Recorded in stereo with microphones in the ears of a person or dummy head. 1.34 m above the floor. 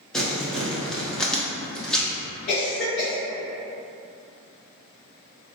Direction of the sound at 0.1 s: 5° left (ahead or behind).